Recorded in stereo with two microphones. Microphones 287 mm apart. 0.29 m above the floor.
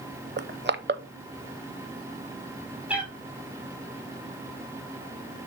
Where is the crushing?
40° right (ahead or behind), 0.6 m.